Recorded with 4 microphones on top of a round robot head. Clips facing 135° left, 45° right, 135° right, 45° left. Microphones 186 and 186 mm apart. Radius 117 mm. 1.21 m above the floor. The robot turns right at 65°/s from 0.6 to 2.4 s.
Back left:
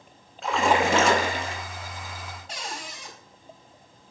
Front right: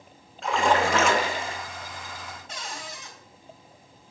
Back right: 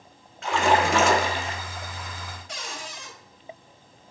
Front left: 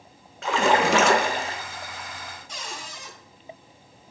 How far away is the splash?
About 1.1 m.